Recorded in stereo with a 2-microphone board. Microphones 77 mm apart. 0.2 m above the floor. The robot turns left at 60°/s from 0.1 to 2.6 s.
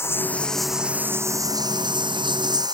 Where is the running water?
35° left; by 2.7 s 115° right.